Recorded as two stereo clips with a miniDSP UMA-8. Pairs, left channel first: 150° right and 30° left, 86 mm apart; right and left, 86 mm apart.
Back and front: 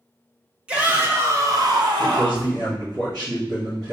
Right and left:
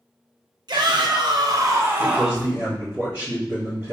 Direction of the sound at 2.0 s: 45° left.